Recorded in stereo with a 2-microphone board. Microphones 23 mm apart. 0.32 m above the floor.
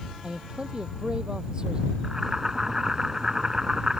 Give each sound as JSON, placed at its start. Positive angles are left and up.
{"t": 0.2, "sound": "a man speaking", "side_deg": -35}
{"t": 2.0, "sound": "boiling", "side_deg": -20}